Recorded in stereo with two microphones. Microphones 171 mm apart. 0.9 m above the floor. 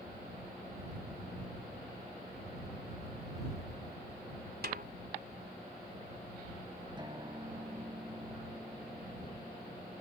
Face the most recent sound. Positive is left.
turn(degrees=-25)  # may be behind; listen again after turning